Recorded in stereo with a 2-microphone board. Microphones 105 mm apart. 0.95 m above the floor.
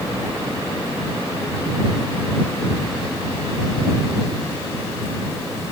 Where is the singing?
No singing in this recording.